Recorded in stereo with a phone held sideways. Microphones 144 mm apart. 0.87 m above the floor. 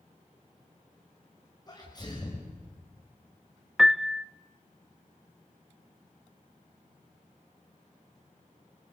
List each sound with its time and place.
1.7 s a sneeze: 30° left (ahead or behind), 5.5 m
3.8 s a piano: centre (ahead or behind), 0.5 m